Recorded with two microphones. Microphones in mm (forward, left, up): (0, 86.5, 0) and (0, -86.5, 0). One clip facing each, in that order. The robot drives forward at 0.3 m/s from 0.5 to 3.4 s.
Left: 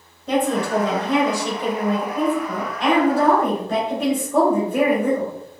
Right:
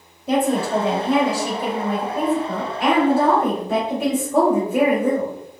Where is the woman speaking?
10° right (ahead or behind), 1.1 m.